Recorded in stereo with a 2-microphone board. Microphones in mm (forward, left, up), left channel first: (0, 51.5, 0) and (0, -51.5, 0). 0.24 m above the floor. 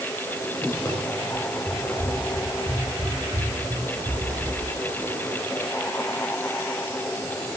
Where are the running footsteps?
20° left (ahead or behind), 7 m; by 4.6 s 5° right (ahead or behind), 6 m.